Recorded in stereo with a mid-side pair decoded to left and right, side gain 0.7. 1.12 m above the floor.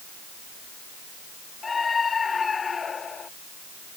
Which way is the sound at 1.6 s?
20° left.